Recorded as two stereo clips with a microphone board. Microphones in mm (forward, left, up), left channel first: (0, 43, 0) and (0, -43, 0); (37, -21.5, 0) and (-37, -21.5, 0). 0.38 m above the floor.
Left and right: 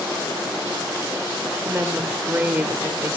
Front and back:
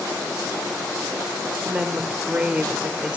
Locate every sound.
1.6 s a woman speaking: 125° right, 0.9 m